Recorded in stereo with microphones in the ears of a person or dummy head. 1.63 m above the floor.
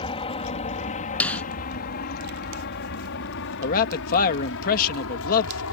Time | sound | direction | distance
0.0 | an aircraft | 30° left (ahead or behind) | ?
1.2 | a snare drum | 10° left (ahead or behind) | ?
3.6 | a man speaking | 50° left (ahead or behind) | ?